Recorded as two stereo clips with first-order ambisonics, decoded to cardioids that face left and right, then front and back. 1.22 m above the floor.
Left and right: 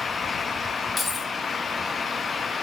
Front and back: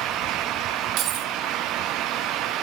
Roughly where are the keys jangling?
Behind.